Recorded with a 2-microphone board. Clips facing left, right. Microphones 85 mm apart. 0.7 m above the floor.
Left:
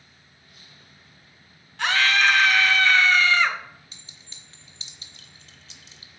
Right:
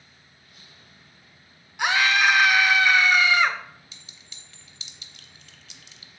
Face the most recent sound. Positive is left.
turn(degrees=35)  # may be behind; listen again after turning